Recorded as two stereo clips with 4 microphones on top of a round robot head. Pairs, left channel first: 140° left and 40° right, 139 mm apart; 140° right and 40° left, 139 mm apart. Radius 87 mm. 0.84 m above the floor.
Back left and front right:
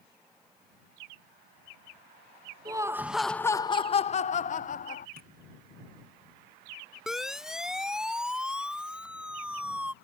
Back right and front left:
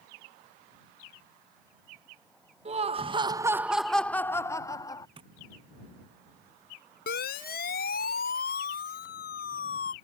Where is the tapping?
15° right.